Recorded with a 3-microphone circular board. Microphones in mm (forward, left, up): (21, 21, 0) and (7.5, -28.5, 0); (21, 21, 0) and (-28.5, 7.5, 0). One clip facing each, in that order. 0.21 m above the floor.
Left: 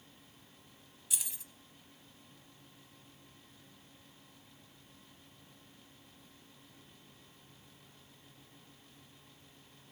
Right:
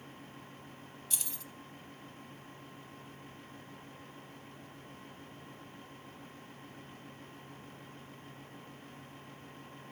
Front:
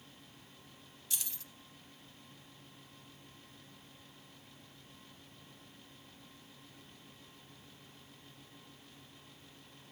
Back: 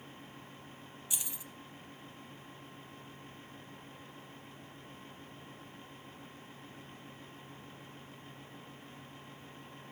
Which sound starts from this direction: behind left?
Keys jangling, at 1.1 s.